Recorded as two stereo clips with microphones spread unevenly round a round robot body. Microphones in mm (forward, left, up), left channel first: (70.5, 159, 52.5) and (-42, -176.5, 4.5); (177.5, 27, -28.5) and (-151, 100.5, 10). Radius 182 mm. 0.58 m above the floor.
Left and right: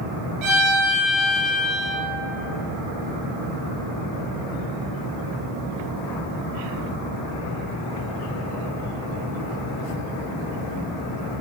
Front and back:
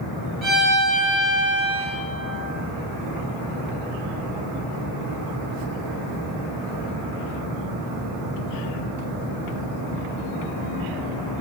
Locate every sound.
0.4 s a violin: 105° right, 2.5 m